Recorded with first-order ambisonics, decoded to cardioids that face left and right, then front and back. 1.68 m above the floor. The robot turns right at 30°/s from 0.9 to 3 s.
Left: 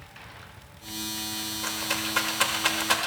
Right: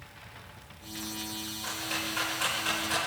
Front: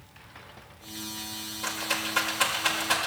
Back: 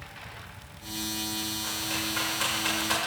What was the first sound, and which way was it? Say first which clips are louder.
A rattle: left 3 dB, front 5 dB; 50° left.